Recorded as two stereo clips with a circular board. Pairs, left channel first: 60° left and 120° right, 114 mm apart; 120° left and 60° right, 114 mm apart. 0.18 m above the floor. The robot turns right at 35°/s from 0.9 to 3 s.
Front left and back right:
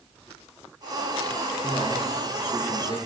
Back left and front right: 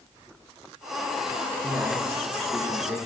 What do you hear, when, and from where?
1.6 s a man speaking: 20° right, 2 m; by 3.0 s 25° left, 2 m